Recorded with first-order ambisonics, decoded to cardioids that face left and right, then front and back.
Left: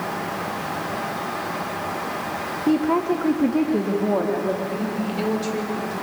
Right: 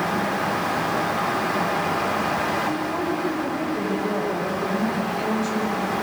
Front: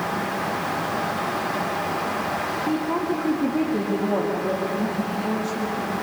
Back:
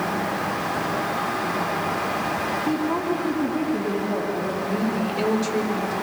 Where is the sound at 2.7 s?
95° left, 1.9 m; by 4.5 s 70° left, 4 m.